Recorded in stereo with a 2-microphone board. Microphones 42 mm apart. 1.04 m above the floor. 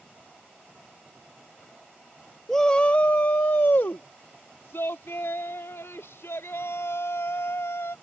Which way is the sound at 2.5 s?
5° left (ahead or behind).